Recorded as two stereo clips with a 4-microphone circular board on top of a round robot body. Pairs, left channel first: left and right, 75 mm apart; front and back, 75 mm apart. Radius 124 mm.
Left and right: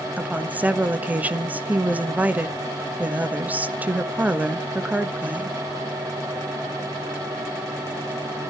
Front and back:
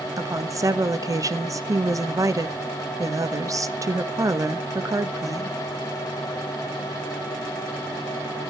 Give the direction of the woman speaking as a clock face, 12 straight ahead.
5 o'clock.